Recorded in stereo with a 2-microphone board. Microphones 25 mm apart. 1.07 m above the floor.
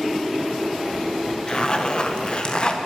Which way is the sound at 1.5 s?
35° left (ahead or behind).